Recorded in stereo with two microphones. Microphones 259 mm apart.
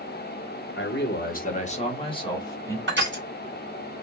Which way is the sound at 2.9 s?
45° right (ahead or behind).